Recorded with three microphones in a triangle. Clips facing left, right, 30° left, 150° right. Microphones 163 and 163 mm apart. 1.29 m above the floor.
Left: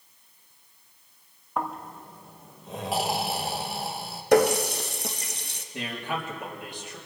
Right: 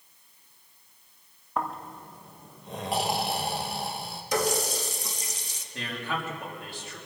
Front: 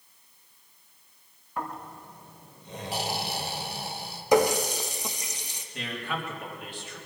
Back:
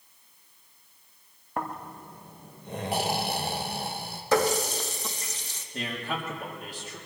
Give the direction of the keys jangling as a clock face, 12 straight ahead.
No keys jangling in this recording.